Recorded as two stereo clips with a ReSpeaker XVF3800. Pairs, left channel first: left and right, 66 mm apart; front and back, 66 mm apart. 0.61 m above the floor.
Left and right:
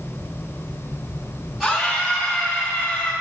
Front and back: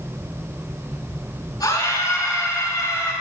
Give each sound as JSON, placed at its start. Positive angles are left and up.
{"t": 1.6, "sound": "a scream", "azimuth_deg": 0, "distance_m": 4.5}